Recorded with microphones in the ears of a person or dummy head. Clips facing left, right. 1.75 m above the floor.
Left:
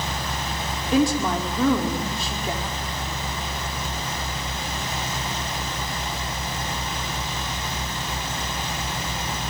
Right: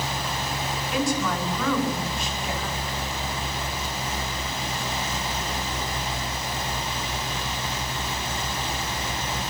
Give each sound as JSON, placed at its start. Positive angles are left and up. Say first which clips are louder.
{"t": 0.9, "sound": "a woman speaking", "louder": "left 6 dB", "side_deg": 35, "distance_m": 5.5}